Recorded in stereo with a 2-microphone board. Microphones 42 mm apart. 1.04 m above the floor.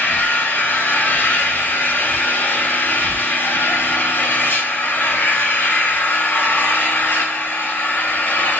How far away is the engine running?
About 4 m.